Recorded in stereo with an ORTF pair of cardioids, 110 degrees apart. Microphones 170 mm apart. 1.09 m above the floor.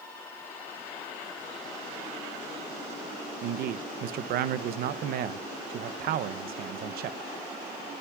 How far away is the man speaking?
About 0.9 m.